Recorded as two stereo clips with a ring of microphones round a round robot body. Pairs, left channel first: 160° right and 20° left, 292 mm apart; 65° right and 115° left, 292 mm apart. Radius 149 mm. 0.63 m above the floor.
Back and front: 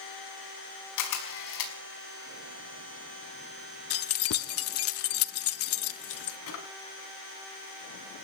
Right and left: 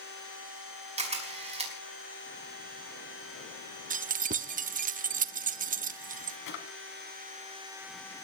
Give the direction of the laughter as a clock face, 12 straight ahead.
I don't hear laughter.